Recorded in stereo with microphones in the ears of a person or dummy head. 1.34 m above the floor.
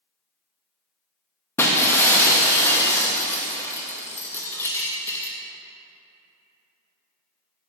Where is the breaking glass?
10° left (ahead or behind), 0.9 m.